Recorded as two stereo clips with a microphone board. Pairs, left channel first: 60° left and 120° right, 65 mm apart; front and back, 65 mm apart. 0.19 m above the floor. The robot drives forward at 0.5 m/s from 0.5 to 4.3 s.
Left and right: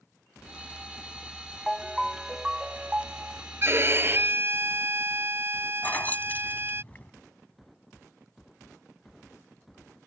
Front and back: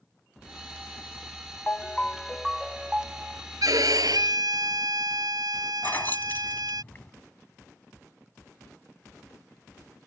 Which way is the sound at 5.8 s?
25° left.